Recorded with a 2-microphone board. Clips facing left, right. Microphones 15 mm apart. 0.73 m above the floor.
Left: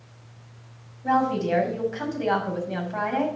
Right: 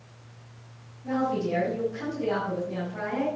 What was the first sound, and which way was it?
A woman speaking, 80° left.